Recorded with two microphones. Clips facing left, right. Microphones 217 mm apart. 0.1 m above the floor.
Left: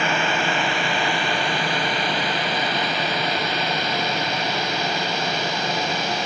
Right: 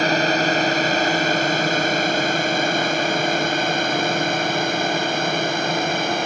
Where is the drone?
40° right (ahead or behind); by 6.3 s 50° right (ahead or behind).